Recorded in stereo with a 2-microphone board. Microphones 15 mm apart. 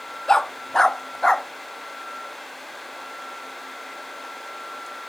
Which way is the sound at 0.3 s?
50° left (ahead or behind).